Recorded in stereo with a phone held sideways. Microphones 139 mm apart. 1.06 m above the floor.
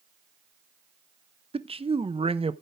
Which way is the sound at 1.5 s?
45° right (ahead or behind).